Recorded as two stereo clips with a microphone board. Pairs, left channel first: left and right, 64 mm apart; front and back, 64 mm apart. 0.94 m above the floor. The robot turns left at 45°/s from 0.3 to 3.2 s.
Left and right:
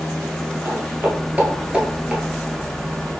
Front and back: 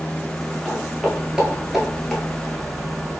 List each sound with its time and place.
0.7 s footsteps: 85° right, 1.3 m; by 2.2 s 55° right, 0.9 m